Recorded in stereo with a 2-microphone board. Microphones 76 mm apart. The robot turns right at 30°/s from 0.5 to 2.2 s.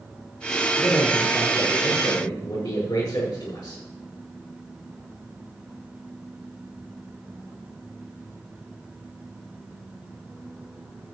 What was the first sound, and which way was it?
A man speaking, 25° left.